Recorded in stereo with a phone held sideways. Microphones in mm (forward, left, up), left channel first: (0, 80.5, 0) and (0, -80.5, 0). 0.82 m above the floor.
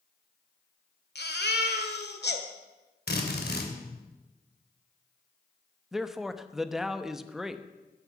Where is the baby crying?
85° left, 1.7 m.